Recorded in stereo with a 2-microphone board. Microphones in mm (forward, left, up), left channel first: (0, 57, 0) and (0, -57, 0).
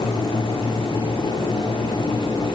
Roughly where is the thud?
I don't hear a thud.